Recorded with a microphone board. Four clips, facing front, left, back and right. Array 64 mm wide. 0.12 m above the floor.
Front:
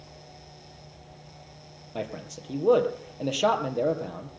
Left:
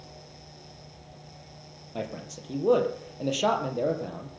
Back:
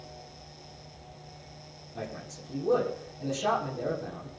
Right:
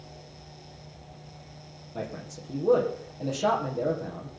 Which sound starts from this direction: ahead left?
A man speaking, at 1.9 s.